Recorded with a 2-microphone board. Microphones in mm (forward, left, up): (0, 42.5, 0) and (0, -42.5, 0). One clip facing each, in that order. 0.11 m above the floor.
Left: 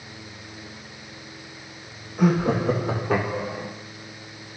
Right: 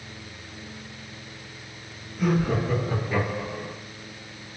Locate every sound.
2.2 s laughter: 70° left (ahead or behind), 5 m; by 3.7 s 80° left, 5.5 m